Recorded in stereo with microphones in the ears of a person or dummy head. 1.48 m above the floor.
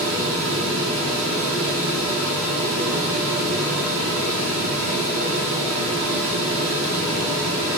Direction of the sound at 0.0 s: 80° right.